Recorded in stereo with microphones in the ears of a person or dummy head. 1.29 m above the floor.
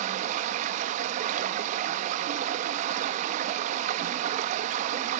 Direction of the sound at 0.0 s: 45° right (ahead or behind).